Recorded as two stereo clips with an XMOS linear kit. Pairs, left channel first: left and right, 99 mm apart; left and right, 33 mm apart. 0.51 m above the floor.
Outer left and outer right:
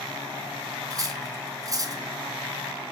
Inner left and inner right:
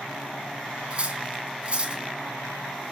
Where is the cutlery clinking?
35° right (ahead or behind), 2.5 m.